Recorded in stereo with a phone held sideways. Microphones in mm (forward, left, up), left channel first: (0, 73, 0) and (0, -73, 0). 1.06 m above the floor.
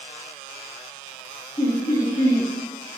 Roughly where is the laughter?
Left.